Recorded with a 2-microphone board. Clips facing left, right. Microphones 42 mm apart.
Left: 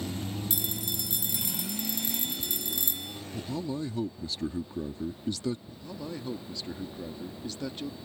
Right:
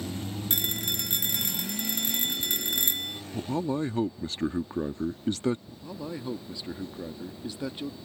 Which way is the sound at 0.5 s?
55° right (ahead or behind).